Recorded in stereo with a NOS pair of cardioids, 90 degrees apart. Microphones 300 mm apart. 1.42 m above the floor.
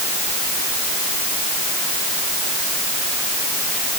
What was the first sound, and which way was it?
Only background noise.